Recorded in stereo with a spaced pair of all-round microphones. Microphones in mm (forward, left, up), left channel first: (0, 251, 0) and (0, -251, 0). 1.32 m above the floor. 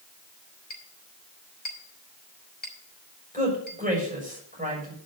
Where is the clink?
70° left (ahead or behind), 4 m.